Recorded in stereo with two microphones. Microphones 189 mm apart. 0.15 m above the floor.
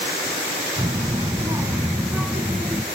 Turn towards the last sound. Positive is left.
turn(degrees=0)  # may be behind; listen again after turning